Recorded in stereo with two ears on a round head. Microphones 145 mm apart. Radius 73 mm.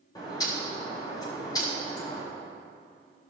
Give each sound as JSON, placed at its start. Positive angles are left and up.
{"t": 0.1, "sound": "a bird", "side_deg": 25, "distance_m": 2.5}